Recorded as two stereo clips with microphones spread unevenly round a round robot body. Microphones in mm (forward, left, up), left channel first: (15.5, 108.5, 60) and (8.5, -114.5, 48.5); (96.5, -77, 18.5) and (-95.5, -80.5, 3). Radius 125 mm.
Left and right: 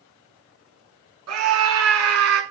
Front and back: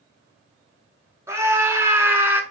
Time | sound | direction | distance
1.3 | a scream | 105° right | 6 m